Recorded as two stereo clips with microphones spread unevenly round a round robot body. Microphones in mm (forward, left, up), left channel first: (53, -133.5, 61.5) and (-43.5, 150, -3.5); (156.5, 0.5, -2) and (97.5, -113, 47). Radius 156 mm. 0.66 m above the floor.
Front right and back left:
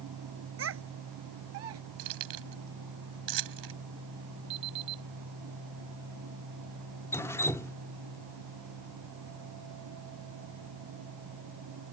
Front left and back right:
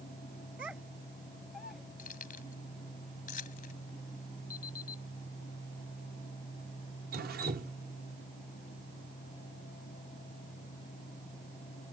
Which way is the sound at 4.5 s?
95° left.